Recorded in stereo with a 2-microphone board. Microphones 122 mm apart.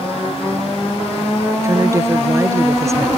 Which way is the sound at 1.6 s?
25° right (ahead or behind).